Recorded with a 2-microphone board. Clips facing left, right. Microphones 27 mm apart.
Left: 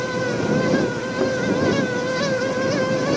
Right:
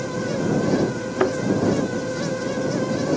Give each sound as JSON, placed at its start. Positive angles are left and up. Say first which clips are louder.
{"t": 1.2, "sound": "a thud", "louder": "right 1 dB", "side_deg": -55}